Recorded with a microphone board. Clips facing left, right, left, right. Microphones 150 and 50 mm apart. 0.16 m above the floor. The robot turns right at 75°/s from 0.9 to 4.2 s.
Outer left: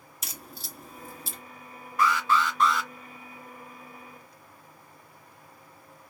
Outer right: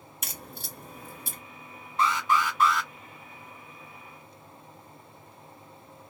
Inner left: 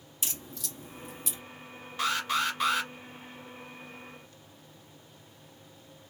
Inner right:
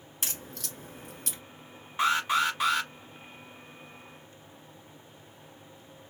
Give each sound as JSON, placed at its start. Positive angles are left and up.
{"t": 0.2, "sound": "a crack", "side_deg": -55, "distance_m": 1.8}
{"t": 2.0, "sound": "an alarm", "azimuth_deg": -55, "distance_m": 1.4}